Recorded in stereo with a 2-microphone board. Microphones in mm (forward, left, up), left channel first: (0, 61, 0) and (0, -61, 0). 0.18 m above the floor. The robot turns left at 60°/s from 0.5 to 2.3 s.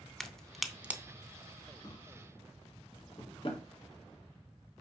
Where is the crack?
5° left (ahead or behind), 0.6 m; by 1.0 s 15° right (ahead or behind), 0.6 m.